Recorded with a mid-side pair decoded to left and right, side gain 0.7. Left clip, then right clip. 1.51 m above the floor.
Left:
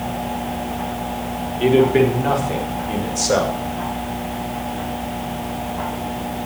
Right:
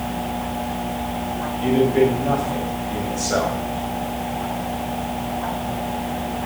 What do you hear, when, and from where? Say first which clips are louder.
1.6 s a man speaking: left 3 dB; 55° left, 4 m; by 3.6 s 50° left, 5.5 m